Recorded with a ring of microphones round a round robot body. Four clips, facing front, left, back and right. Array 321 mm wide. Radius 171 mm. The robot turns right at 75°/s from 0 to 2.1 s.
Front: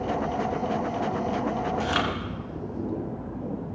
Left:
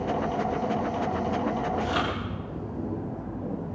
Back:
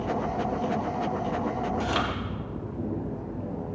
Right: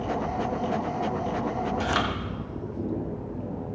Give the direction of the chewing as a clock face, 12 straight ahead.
3 o'clock.